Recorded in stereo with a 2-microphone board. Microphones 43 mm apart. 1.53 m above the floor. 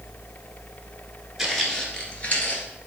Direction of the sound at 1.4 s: 5° right (ahead or behind).